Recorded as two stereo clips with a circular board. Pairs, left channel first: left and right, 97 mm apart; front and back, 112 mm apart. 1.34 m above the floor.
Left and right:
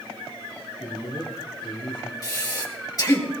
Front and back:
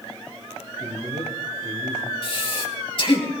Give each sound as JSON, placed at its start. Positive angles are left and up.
{"t": 0.8, "sound": "a man speaking", "azimuth_deg": 130, "distance_m": 6.0}
{"t": 2.2, "sound": "breathing", "azimuth_deg": 40, "distance_m": 3.0}